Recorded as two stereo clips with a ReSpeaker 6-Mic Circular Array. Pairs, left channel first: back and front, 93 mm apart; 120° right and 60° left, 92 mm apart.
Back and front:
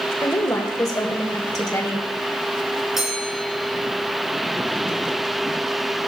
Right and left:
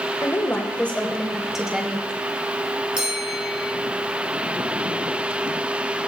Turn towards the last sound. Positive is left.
turn(degrees=85)